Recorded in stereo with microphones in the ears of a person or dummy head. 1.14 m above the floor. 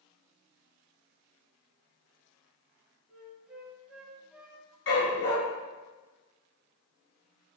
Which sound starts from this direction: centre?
A flute, at 3.1 s.